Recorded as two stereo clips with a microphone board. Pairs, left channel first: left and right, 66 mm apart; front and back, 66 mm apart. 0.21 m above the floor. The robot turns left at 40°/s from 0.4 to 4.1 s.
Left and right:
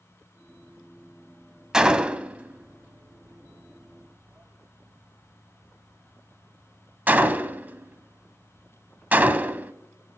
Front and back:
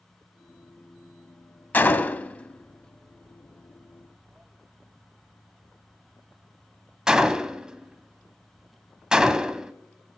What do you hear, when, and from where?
1.7 s a gunshot: 20° right, 0.5 m; by 9.7 s 115° right, 0.5 m